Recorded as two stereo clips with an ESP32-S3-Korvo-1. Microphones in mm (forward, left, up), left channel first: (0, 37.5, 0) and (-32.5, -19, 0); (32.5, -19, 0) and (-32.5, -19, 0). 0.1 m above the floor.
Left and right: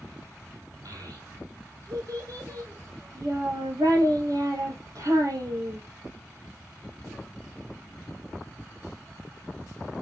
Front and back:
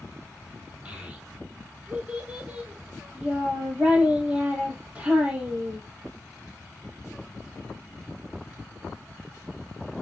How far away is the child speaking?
About 3 m.